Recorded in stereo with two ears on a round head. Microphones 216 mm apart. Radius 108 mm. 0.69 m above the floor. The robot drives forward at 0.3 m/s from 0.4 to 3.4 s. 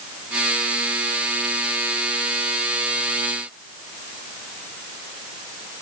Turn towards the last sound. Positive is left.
No sound to turn to.